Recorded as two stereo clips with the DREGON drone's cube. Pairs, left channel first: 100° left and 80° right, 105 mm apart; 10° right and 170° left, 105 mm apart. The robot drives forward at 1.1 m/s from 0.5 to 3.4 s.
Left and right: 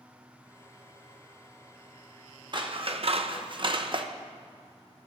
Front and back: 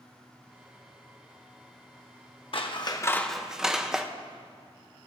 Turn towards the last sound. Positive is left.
turn(degrees=-105)